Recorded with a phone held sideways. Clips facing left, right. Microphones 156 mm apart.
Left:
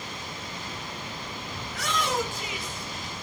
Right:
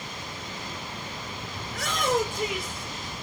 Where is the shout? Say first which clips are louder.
Right 2 dB; 60° right (ahead or behind), 4 m; by 3.2 s 70° right (ahead or behind), 4 m.